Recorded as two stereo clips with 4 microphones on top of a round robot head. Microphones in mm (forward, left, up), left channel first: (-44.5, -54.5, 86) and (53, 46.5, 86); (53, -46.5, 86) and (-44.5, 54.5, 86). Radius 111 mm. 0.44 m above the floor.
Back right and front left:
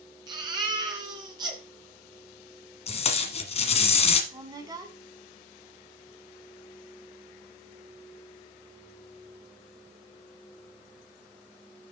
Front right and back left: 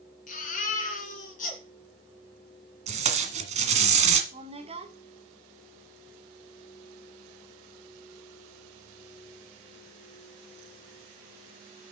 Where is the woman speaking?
105° left, 2 m.